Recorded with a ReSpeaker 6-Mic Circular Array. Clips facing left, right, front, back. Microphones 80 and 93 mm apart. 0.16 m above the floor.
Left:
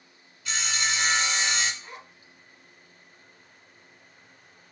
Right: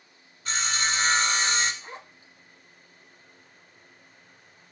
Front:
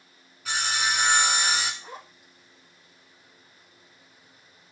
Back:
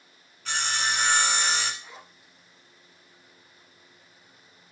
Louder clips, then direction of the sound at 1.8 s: Right 2 dB, front 5 dB; 35° right.